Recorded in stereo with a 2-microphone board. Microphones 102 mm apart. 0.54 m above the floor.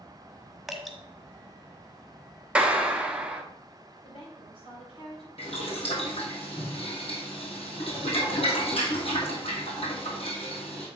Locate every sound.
0.7 s dripping: centre (ahead or behind), 1.3 m
2.5 s a clap: 10° right (ahead or behind), 0.9 m
4.0 s a woman speaking: 70° left (ahead or behind), 3 m
5.4 s boiling: 75° left (ahead or behind), 3 m